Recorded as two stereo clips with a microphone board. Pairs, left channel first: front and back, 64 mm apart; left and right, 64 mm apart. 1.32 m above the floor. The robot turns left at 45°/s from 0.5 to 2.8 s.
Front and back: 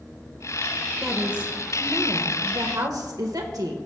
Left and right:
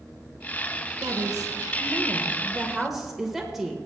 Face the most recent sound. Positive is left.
turn(degrees=-175)